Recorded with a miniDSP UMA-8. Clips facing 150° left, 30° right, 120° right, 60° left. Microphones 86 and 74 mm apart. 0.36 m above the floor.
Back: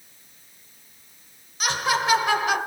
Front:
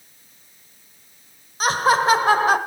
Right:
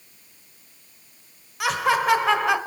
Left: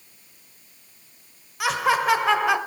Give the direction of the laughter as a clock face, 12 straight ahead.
1 o'clock.